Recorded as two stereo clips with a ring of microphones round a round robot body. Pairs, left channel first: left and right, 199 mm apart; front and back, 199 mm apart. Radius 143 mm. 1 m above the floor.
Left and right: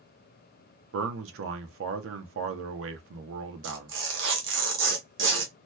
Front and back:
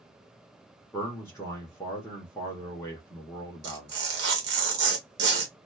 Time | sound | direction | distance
0.9 | a man speaking | 80° right | 0.8 m
3.6 | tearing paper | 135° right | 0.6 m